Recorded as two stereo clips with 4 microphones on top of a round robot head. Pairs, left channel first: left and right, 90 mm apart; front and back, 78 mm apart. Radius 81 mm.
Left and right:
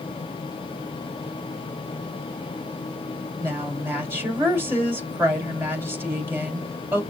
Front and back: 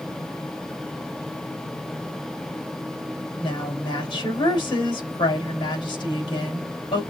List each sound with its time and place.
3.4 s a woman speaking: 25° right, 3 m